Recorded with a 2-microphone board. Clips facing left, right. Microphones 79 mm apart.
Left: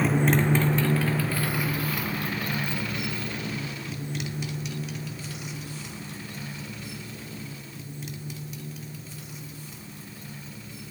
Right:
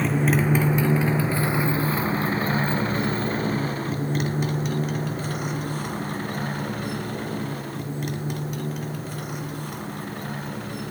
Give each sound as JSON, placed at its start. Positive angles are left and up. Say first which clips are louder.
{"t": 0.0, "sound": "a motorcycle", "louder": "right 1 dB", "side_deg": 5}